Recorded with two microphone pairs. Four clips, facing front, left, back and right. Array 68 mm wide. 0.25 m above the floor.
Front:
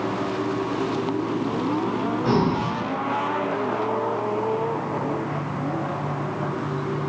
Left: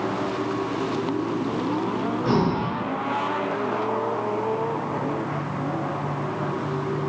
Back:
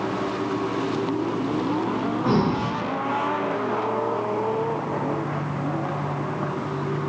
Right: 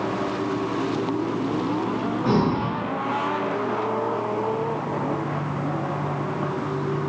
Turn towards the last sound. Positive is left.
turn(degrees=20)